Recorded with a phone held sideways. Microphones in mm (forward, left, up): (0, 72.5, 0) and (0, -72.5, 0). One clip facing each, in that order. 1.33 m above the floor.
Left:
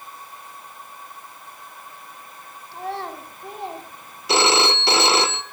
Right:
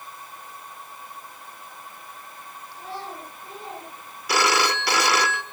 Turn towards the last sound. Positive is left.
turn(degrees=25)  # may be behind; listen again after turning